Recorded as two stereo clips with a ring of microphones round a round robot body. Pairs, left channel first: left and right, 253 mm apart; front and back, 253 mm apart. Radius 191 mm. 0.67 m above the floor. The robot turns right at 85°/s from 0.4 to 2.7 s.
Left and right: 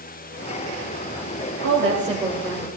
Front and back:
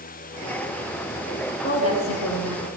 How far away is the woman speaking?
About 3 m.